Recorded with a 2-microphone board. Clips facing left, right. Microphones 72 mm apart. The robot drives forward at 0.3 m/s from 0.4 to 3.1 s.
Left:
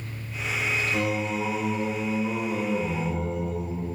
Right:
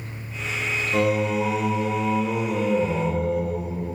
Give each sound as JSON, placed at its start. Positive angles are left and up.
{"t": 0.9, "sound": "singing", "side_deg": -55, "distance_m": 0.7}